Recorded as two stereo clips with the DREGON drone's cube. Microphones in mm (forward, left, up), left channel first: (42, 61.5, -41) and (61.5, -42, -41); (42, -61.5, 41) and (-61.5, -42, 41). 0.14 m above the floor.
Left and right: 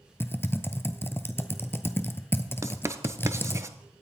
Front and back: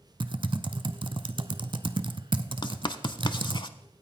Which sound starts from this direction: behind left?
Typing on a keyboard, at 0.2 s.